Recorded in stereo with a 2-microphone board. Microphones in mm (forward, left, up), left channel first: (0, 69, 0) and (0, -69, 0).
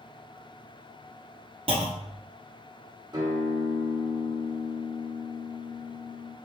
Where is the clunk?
50° right (ahead or behind), 0.8 m.